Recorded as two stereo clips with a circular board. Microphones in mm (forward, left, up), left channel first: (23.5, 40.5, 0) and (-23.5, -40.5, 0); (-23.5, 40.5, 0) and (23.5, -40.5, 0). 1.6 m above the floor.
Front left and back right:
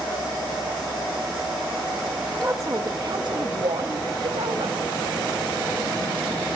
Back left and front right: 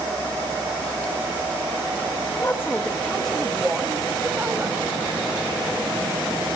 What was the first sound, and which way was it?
A woman speaking, straight behind.